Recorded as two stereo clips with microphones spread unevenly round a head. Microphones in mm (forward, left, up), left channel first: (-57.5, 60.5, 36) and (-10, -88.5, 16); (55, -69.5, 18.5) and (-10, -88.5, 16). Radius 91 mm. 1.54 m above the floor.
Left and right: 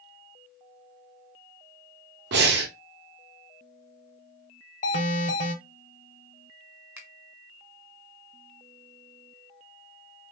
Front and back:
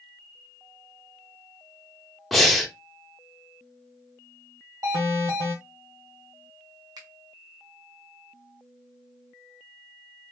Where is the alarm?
150° left, 1.3 m.